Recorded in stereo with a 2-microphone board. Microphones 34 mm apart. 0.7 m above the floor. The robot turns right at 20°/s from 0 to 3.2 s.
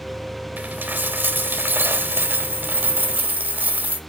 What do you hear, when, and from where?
0.6 s a dropped coin: 115° right, 1.0 m; by 4.0 s 60° right, 1.0 m